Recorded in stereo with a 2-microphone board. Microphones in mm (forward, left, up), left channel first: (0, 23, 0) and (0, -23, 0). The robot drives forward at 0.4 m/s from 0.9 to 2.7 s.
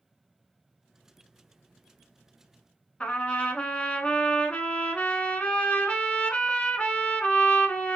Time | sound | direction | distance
3.0 | a trumpet | 25° left (ahead or behind) | 0.6 m